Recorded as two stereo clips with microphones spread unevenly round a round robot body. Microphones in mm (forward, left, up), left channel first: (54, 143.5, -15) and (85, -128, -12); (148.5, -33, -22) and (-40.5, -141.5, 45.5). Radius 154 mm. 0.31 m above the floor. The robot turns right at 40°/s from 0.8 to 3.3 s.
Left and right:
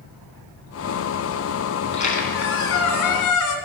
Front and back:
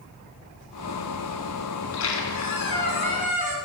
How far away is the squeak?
About 1.9 m.